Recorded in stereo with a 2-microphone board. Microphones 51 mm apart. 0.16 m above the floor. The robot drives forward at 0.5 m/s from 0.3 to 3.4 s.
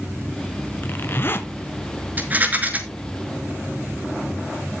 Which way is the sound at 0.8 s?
45° left (ahead or behind).